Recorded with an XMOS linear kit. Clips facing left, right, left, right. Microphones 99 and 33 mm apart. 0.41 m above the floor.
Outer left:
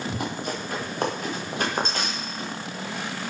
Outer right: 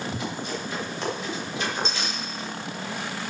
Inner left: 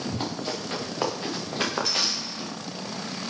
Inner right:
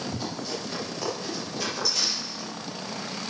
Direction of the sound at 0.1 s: 55° left (ahead or behind).